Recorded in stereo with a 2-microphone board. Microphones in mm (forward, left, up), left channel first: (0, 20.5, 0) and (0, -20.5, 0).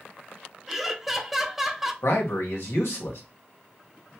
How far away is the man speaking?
About 1.4 m.